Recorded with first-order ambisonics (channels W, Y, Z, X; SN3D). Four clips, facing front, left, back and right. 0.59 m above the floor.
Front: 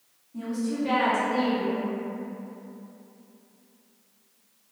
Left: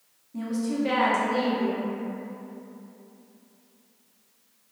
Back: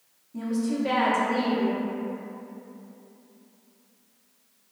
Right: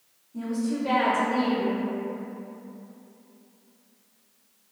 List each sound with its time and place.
0.3 s a woman speaking: 115° left, 0.6 m